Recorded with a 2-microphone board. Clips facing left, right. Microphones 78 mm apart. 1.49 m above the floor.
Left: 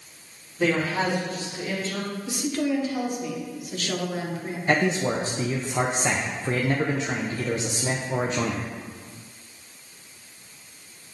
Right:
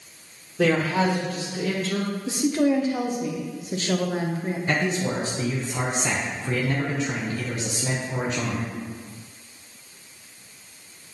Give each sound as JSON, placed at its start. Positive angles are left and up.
{"t": 0.6, "sound": "a man speaking", "side_deg": -70, "distance_m": 2.0}
{"t": 2.3, "sound": "a woman speaking", "side_deg": -25, "distance_m": 1.2}
{"t": 4.7, "sound": "a man speaking", "side_deg": 30, "distance_m": 0.7}